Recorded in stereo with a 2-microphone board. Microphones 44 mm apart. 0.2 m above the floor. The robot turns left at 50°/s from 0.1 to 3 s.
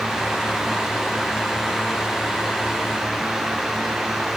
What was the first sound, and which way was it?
Only background noise.